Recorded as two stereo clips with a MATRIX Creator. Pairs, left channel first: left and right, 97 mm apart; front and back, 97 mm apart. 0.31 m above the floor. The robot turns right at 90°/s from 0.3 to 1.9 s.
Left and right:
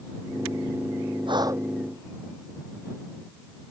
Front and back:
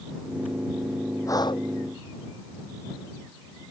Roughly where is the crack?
No crack in this recording.